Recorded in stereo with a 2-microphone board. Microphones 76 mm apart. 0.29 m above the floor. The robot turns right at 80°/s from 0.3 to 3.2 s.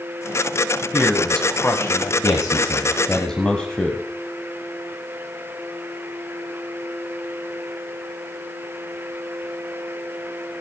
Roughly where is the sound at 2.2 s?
Left.